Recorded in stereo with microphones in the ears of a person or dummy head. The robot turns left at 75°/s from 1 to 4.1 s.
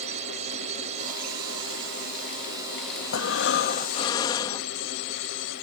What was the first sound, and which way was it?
A drone, 45° right.